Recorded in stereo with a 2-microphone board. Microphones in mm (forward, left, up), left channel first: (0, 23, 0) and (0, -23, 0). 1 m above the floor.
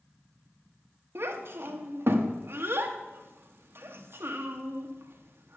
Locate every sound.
1.1 s a child speaking: 55° right (ahead or behind), 1.0 m